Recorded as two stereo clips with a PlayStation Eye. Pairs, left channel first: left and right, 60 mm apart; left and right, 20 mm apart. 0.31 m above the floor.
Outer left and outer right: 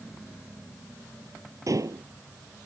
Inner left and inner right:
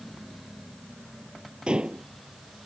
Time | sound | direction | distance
1.7 | dishes clattering | 65° right (ahead or behind) | ?